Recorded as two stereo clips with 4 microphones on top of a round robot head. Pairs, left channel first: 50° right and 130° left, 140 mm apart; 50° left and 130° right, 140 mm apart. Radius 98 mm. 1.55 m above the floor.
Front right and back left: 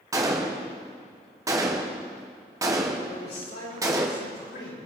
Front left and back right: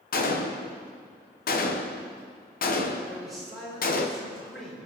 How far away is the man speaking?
About 5.5 m.